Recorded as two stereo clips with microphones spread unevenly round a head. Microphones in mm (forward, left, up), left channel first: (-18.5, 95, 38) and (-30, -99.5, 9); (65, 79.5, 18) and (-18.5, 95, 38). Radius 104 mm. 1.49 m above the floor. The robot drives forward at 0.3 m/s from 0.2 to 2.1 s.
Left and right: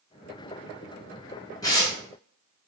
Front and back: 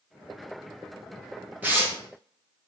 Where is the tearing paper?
135° left, 0.9 m; by 2.0 s 140° left, 0.9 m.